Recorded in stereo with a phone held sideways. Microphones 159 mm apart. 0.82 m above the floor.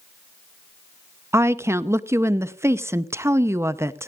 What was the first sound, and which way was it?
A woman speaking, 20° right (ahead or behind).